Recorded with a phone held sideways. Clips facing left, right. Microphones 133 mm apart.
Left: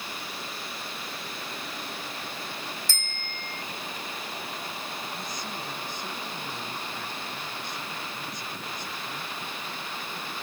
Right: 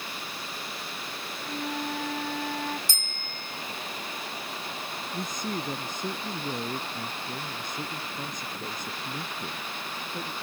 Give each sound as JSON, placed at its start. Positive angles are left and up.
{"t": 1.4, "sound": "a flute", "side_deg": -90}
{"t": 2.9, "sound": "a bicycle bell", "side_deg": -15}
{"t": 5.1, "sound": "a man speaking", "side_deg": -45}